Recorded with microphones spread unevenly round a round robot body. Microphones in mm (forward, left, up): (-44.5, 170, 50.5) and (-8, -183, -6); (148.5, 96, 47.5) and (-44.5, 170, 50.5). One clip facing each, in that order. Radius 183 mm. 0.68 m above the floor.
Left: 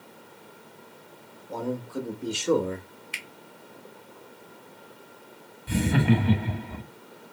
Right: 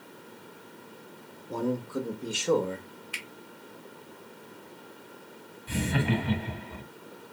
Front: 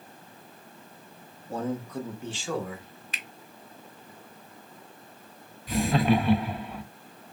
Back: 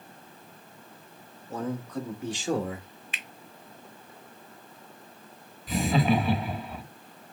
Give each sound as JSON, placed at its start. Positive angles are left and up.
{"t": 1.5, "sound": "a man speaking", "azimuth_deg": -50, "distance_m": 0.9}
{"t": 3.1, "sound": "a finger snap", "azimuth_deg": 30, "distance_m": 1.0}
{"t": 5.7, "sound": "laughter", "azimuth_deg": 70, "distance_m": 0.9}